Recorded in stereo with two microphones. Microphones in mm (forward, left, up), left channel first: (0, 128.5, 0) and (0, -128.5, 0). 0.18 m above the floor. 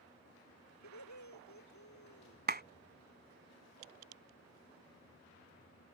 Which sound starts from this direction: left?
Laughter, at 0.8 s.